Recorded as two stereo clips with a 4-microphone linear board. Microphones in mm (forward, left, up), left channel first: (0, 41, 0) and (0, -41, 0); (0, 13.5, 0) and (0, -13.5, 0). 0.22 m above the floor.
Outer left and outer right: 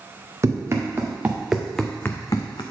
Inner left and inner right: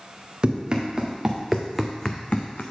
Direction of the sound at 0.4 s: 35° right (ahead or behind).